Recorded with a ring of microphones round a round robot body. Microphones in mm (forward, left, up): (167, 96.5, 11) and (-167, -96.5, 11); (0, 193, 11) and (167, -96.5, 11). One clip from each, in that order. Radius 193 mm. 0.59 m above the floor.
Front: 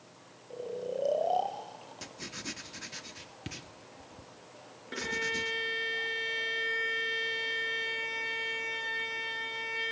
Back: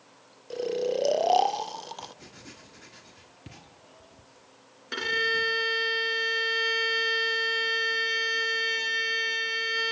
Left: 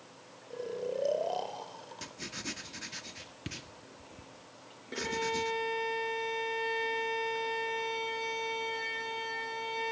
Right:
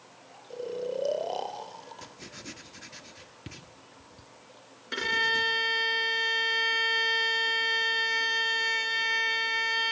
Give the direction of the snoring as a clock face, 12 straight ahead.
5 o'clock.